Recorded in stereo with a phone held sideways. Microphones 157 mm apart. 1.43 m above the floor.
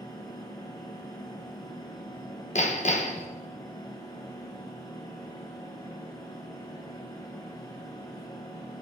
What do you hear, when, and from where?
0.0 s a fan: 25° left (ahead or behind), 2.5 m
2.5 s hammering: 45° left (ahead or behind), 0.8 m